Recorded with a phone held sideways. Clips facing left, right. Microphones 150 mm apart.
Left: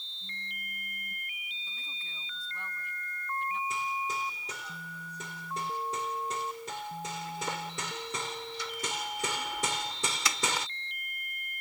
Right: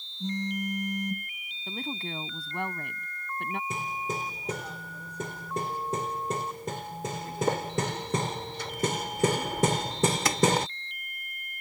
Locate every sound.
0.2 s a phone buzzing: 85° right
1.7 s a woman speaking: 70° right (ahead or behind)
3.7 s hammering: 50° right (ahead or behind)